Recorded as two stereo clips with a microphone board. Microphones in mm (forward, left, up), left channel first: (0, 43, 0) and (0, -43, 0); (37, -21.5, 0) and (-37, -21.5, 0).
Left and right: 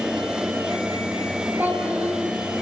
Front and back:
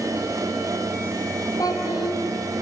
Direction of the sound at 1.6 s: 20° right.